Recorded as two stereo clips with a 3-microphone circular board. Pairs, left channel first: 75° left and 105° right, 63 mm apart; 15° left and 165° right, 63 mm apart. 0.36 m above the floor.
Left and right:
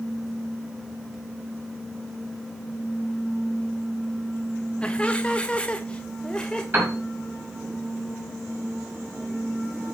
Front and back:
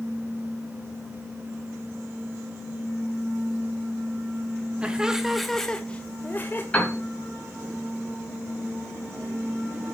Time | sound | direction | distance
4.8 | laughter | 140° left | 1.3 m
6.7 | a piano | 50° right | 4.5 m